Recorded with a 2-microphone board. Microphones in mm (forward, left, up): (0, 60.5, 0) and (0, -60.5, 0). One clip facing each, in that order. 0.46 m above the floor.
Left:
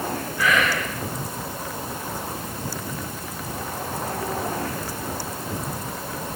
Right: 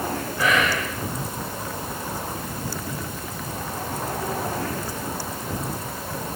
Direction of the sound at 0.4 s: 25° right (ahead or behind).